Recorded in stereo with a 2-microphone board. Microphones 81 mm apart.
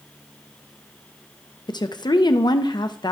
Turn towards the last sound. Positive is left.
turn(degrees=65)  # may be behind; listen again after turning